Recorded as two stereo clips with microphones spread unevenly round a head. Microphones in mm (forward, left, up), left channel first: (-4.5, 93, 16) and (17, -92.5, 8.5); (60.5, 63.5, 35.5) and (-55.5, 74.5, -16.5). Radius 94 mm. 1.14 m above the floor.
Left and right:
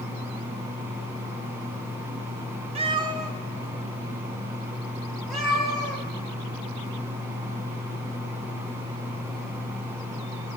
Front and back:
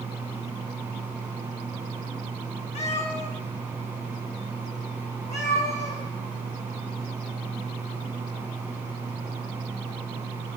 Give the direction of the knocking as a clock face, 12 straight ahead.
No knocking in this recording.